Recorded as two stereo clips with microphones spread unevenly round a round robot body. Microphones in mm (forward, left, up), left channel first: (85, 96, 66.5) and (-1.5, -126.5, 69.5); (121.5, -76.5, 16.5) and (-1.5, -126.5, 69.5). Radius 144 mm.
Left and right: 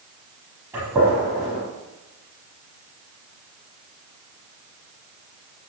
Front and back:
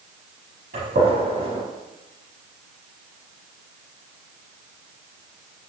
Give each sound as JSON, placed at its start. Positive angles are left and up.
{"t": 0.7, "sound": "a gunshot", "azimuth_deg": 170, "distance_m": 5.5}